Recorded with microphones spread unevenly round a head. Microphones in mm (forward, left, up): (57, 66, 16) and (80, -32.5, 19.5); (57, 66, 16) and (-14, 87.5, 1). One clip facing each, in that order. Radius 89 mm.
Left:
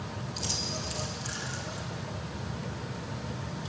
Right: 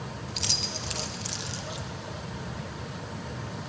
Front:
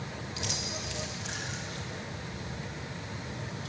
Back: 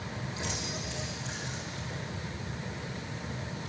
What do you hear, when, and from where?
0.3 s keys jangling: 60° right, 1.2 m